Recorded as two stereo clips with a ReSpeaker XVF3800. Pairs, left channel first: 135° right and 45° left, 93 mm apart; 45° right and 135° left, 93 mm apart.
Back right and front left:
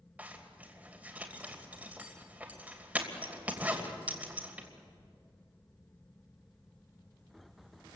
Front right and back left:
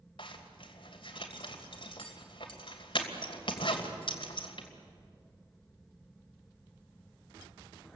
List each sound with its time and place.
0.2 s a zipper: 30° right, 2.5 m